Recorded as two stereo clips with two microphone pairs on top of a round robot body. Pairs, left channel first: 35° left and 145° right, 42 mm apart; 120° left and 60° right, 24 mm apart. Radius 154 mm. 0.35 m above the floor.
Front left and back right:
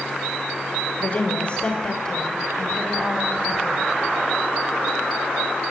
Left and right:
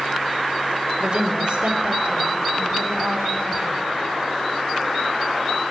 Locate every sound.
1.0 s a woman speaking: 20° right, 2.5 m; by 3.9 s 50° right, 3.5 m